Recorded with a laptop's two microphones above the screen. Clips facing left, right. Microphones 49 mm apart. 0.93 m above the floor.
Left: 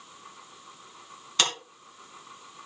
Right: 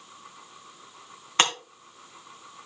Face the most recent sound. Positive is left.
turn(degrees=-35)  # may be behind; listen again after turning